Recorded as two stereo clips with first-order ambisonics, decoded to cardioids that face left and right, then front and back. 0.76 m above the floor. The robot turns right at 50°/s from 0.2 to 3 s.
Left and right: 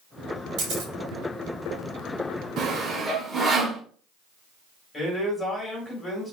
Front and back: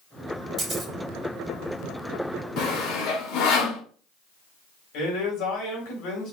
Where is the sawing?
40° right, 1.2 m; by 3.8 s 20° right, 1.2 m.